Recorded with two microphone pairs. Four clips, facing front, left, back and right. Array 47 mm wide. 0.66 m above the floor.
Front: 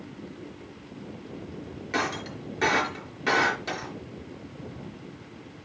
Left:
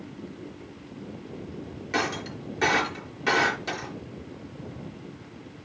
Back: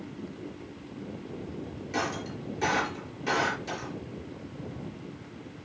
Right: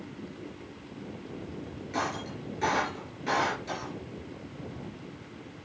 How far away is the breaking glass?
About 3.5 m.